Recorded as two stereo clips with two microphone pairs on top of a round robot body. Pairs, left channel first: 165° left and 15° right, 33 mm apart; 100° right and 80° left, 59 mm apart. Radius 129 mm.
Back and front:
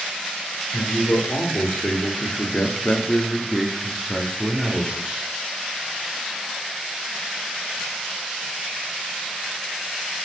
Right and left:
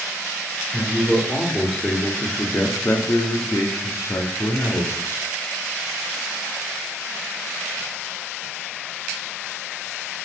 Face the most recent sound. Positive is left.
turn(degrees=-70)